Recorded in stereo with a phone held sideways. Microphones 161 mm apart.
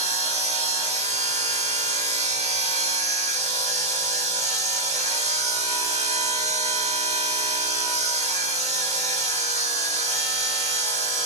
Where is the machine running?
45° right (ahead or behind), 1.6 m.